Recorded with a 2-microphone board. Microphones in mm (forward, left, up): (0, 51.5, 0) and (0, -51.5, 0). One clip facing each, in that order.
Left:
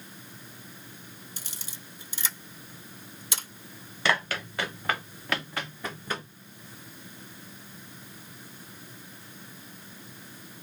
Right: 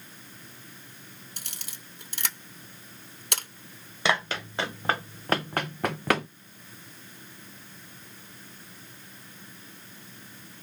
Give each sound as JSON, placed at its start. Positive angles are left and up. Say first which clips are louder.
{"t": 1.4, "sound": "a camera shutter", "louder": "left 1 dB", "side_deg": -60, "distance_m": 1.1}
{"t": 4.0, "sound": "running footsteps", "louder": "right 1 dB", "side_deg": -20, "distance_m": 1.6}